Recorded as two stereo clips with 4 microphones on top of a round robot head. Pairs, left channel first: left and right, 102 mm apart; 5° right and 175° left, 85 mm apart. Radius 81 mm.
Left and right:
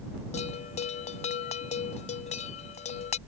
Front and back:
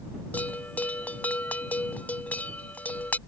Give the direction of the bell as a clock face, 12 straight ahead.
10 o'clock.